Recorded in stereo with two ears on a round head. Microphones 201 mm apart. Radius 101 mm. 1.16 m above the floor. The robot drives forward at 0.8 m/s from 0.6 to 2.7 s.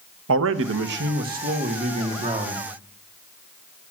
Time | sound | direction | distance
0.3 | a man speaking | 65° right (ahead or behind) | 1.0 m